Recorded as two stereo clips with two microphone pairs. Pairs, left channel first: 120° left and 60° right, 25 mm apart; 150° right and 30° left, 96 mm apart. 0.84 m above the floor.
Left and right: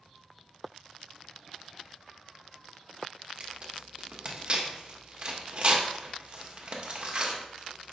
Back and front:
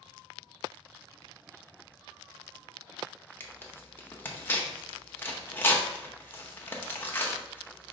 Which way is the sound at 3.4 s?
90° right.